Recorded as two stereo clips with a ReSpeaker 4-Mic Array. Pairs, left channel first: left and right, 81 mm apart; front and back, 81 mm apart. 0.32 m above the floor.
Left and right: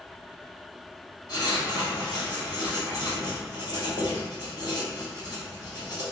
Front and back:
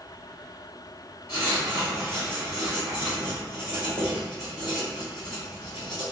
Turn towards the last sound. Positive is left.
turn(degrees=120)